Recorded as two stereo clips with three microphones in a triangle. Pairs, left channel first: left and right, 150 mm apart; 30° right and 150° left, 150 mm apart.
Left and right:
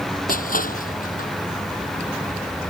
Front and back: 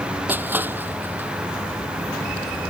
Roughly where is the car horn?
I don't hear a car horn.